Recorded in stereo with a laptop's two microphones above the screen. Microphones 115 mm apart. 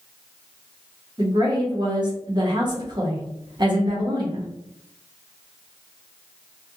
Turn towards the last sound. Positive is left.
turn(degrees=-40)  # may be behind; listen again after turning